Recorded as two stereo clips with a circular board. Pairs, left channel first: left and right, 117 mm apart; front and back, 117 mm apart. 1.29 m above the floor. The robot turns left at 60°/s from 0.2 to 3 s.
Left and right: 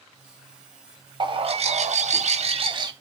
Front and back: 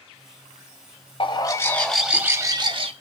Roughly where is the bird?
Ahead right.